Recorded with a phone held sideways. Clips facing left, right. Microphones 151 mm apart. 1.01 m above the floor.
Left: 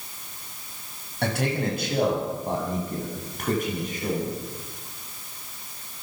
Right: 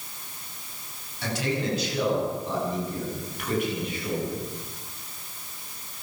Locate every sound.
1.2 s a man speaking: 60° left (ahead or behind), 6.5 m; by 4.4 s 40° left (ahead or behind), 8.5 m